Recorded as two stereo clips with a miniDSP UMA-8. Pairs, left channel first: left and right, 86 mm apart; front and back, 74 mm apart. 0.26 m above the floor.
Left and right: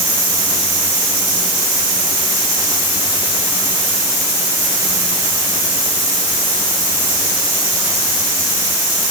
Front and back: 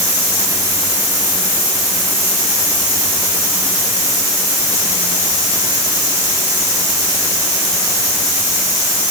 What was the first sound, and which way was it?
Only background noise.